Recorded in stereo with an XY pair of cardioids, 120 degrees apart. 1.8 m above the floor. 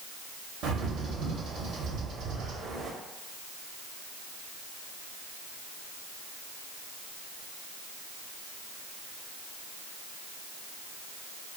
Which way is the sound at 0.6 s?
65° right.